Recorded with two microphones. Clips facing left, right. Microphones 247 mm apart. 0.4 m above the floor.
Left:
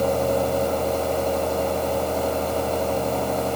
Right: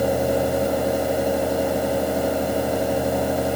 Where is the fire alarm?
No fire alarm in this recording.